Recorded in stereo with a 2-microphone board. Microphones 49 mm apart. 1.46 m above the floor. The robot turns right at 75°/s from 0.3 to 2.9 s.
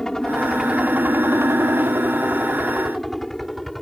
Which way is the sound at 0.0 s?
170° left.